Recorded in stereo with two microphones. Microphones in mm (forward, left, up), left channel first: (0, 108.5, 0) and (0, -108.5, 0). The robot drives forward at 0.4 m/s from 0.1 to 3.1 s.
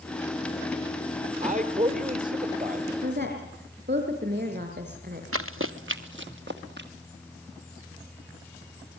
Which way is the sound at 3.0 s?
50° right (ahead or behind).